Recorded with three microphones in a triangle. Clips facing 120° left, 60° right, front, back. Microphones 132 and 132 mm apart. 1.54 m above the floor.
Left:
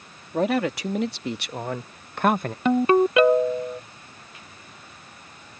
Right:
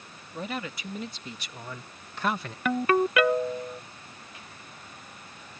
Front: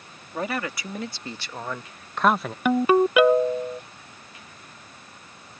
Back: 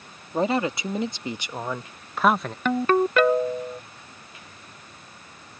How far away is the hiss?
I don't hear a hiss.